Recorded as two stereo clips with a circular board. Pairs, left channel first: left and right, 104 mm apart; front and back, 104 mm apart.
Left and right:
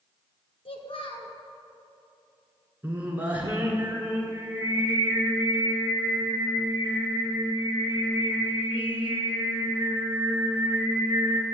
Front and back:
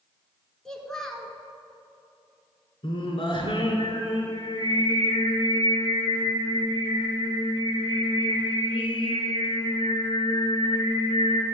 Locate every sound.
0.7 s a child speaking: 85° left, 1.4 m
2.8 s singing: 15° right, 1.5 m